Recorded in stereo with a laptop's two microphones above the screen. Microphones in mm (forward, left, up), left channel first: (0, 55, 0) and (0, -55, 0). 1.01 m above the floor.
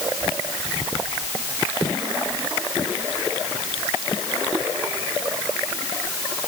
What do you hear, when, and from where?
Only background noise.